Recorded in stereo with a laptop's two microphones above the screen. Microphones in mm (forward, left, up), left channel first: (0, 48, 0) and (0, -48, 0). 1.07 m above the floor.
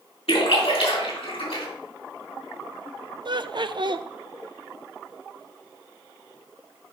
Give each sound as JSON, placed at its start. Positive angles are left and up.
{"t": 0.3, "sound": "a splash", "side_deg": 80, "distance_m": 3.0}
{"t": 3.2, "sound": "laughter", "side_deg": -55, "distance_m": 0.6}